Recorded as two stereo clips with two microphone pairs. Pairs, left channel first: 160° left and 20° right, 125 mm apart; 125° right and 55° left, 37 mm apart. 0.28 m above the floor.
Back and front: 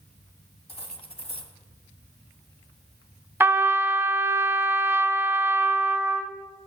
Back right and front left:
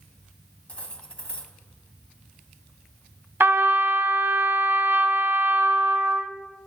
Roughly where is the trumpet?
Ahead left.